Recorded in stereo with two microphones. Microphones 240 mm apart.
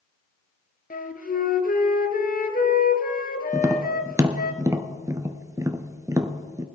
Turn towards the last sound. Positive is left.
turn(degrees=-10)  # may be behind; listen again after turning